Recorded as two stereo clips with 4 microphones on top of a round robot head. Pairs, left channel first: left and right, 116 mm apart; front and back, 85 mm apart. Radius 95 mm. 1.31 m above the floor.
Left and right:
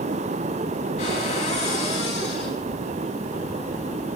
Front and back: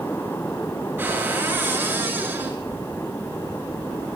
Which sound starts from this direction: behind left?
A cupboard door, at 1.0 s.